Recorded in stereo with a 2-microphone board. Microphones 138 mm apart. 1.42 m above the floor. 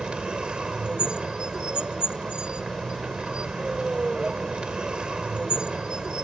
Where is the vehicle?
5° right (ahead or behind).